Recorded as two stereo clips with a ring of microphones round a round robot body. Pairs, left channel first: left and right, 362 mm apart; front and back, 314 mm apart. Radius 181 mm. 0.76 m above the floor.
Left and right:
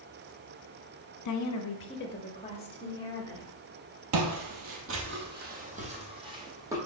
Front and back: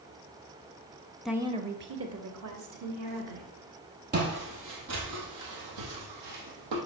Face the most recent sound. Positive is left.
turn(degrees=-170)